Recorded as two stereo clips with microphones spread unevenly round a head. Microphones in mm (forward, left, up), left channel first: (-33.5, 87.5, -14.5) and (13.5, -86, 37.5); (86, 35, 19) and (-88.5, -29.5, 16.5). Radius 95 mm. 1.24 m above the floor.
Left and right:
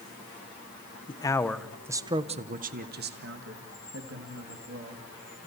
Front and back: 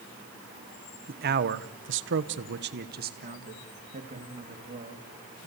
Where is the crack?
No crack in this recording.